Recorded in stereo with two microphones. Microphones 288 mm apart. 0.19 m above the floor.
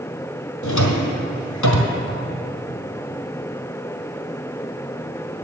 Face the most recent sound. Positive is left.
turn(degrees=85)